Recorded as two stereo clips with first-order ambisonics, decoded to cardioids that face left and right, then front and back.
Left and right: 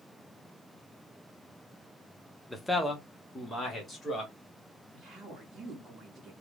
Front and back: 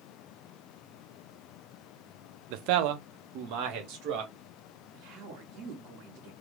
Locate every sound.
2.5 s a man speaking: 175° left, 0.5 m; by 4.3 s 170° left, 1.8 m
4.9 s a woman speaking: 165° right, 1.4 m